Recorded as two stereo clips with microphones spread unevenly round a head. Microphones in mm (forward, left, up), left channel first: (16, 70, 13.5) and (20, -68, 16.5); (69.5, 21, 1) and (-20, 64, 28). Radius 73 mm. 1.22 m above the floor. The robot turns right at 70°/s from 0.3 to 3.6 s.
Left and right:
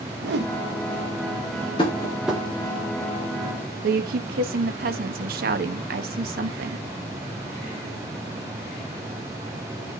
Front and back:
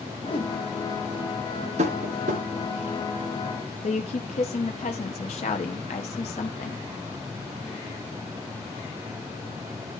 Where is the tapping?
150° left, 2.5 m; by 2.4 s 165° right, 2.5 m.